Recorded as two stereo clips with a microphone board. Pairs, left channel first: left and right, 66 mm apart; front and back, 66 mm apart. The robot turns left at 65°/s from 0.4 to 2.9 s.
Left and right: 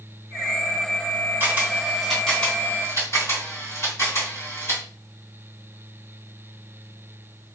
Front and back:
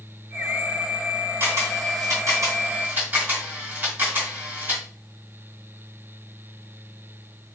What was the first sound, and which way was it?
A camera shutter, 140° right.